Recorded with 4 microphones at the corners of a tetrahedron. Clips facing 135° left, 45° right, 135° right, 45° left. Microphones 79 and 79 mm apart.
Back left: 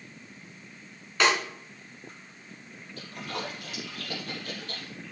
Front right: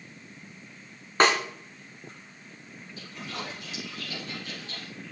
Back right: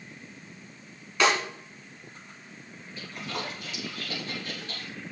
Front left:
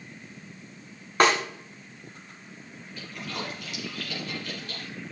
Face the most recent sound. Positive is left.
turn(degrees=170)